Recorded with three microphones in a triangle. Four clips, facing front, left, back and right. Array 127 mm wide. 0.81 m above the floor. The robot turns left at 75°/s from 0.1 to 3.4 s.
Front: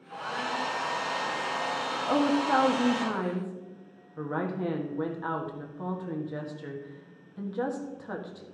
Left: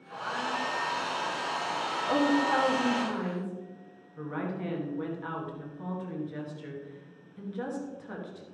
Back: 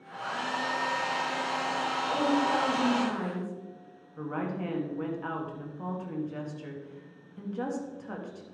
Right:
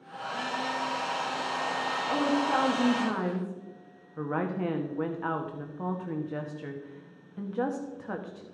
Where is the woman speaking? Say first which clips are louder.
Left 2 dB, front 3 dB; 25° left, 1.2 m; by 8.4 s 75° right, 1.2 m.